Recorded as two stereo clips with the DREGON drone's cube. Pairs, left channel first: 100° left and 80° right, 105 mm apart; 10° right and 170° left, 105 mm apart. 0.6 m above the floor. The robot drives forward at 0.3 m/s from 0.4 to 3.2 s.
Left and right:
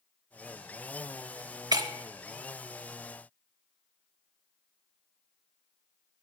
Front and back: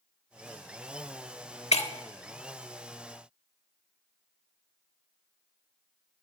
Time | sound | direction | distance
1.7 | breaking glass | 25° right | 1.0 m